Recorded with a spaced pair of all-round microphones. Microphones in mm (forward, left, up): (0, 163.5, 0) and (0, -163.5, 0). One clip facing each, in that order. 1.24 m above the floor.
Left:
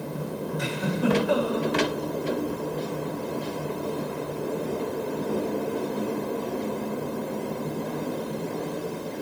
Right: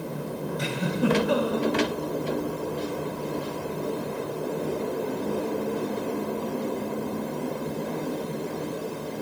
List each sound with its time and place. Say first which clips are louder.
0.6 s a giggle: right 1 dB; 45° right (ahead or behind), 1.4 m